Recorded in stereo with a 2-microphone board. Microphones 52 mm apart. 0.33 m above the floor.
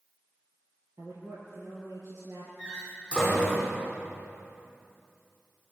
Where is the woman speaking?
70° right (ahead or behind), 8 m.